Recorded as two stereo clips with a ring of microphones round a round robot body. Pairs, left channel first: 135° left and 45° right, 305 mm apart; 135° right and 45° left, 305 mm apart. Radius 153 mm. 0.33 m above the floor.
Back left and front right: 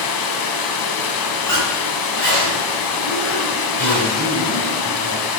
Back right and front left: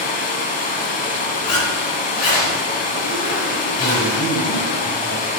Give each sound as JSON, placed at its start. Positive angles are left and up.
{"t": 0.0, "sound": "running water", "azimuth_deg": 160, "distance_m": 0.8}
{"t": 1.4, "sound": "a zipper", "azimuth_deg": -140, "distance_m": 3.0}
{"t": 3.8, "sound": "a man speaking", "azimuth_deg": 165, "distance_m": 2.5}